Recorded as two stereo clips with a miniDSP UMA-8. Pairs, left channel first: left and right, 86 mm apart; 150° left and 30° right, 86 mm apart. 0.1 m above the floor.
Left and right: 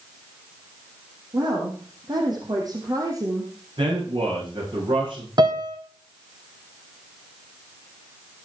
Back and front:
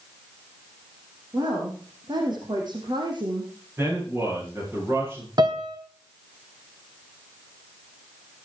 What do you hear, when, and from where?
1.3 s a woman speaking: 65° right, 4.5 m; by 3.5 s 45° right, 2.5 m
3.8 s a man speaking: 95° right, 9 m
5.4 s a piano: 60° right, 2 m